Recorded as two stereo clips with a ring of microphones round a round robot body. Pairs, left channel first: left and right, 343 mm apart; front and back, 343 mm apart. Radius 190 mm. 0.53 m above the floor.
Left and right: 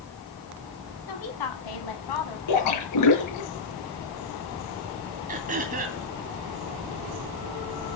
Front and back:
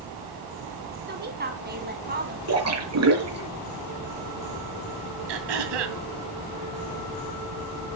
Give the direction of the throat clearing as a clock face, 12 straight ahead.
5 o'clock.